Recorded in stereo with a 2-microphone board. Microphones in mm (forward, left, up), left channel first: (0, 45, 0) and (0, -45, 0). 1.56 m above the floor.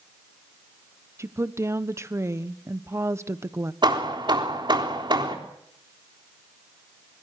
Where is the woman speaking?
30° right (ahead or behind), 1.1 m.